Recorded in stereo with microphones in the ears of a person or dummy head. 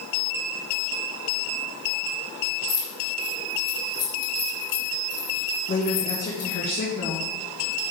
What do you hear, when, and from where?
2.7 s keys jangling: 55° left (ahead or behind), 1.6 m
5.7 s a woman speaking: 45° left (ahead or behind), 1.4 m